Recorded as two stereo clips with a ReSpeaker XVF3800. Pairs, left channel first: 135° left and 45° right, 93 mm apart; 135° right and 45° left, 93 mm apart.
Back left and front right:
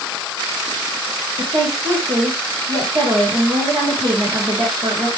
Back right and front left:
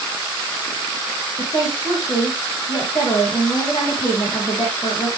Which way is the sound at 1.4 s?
80° right.